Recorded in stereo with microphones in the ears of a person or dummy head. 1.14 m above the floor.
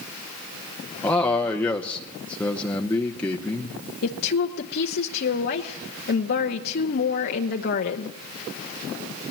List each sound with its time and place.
1.0 s a man speaking: 10° left (ahead or behind), 0.8 m
4.0 s a woman speaking: 55° left (ahead or behind), 0.9 m